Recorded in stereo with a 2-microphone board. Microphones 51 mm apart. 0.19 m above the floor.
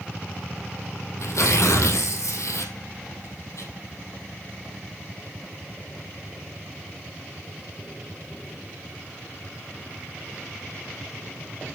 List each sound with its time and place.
1.2 s tearing paper: 70° left (ahead or behind), 2.5 m